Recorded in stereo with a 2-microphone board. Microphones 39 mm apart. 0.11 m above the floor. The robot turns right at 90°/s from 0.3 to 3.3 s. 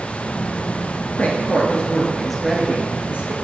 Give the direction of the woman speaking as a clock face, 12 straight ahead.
9 o'clock.